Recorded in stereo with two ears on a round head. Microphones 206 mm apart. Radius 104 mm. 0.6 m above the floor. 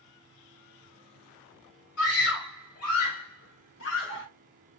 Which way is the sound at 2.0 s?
75° left (ahead or behind).